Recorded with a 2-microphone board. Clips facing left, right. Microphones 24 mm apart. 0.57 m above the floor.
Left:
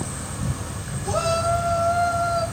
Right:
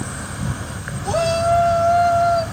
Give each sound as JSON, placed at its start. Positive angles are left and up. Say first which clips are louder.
{"t": 0.0, "sound": "an insect", "louder": "right 3 dB", "side_deg": -55, "distance_m": 3.0}
{"t": 1.1, "sound": "a shout", "louder": "right 4 dB", "side_deg": -35, "distance_m": 3.0}